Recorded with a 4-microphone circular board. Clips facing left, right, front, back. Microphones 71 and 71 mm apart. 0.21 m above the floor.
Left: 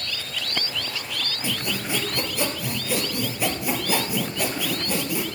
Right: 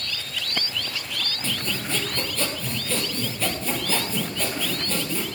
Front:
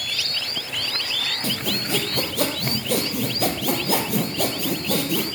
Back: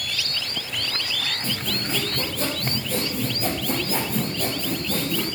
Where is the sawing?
15° left, 1.8 m.